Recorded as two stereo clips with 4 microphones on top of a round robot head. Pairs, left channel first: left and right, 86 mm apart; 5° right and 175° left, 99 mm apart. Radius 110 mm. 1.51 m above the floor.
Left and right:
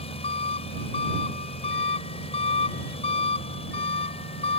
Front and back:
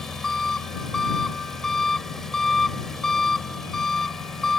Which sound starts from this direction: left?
An engine running, at 0.0 s.